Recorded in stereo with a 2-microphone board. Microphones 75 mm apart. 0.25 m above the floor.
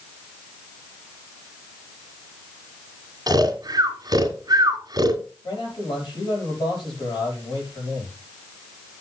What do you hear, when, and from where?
3.3 s snoring: 55° right (ahead or behind), 2 m
5.4 s a man speaking: 80° left, 7 m